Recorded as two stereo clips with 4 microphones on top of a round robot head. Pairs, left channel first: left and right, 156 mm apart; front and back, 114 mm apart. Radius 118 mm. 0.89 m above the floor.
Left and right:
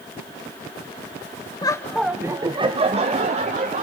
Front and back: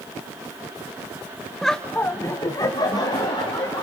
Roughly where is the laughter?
Left.